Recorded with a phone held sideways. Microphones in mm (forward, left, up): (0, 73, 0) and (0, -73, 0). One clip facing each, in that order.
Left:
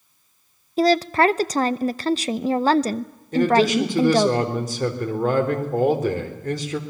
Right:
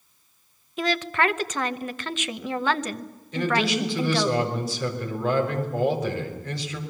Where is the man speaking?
45° left (ahead or behind), 3.5 m.